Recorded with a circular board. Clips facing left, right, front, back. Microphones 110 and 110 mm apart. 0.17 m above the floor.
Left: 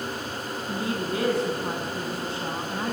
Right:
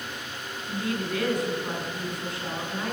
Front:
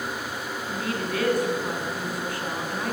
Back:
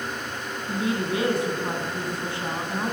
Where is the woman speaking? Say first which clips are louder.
Even, back 4 dB; 130° left, 1.5 m.